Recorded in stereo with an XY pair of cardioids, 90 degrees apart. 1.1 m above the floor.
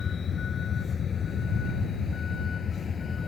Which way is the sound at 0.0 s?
50° left.